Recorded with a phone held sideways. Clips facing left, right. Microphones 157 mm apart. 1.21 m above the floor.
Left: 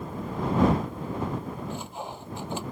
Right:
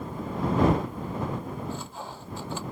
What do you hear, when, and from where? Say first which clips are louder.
1.7 s sawing: left 1 dB; 20° left (ahead or behind)